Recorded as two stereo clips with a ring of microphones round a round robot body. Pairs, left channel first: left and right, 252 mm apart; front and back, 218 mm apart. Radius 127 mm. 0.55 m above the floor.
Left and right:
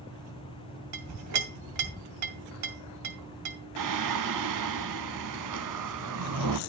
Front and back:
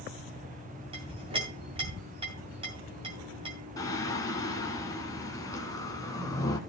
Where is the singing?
75° right, 1.0 m.